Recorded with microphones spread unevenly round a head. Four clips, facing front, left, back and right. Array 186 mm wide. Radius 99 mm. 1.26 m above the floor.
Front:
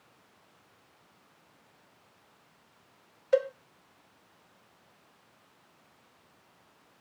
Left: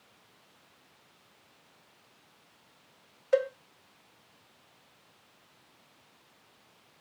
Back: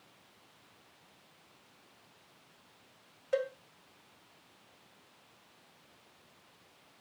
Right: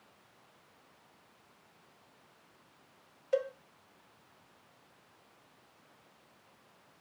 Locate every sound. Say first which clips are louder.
3.3 s a cowbell: left 5 dB, front 7 dB; 40° left, 0.7 m